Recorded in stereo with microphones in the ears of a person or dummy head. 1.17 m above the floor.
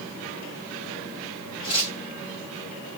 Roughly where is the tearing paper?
Left.